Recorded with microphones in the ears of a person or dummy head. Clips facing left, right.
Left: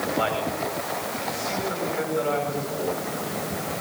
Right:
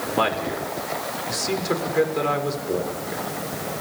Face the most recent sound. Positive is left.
turn(degrees=-80)